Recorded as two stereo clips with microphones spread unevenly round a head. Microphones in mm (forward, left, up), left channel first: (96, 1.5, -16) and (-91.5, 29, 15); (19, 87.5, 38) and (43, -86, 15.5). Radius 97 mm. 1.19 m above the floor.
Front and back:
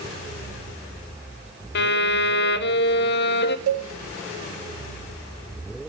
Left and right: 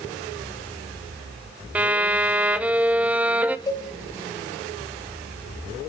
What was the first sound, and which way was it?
A violin, 5° right.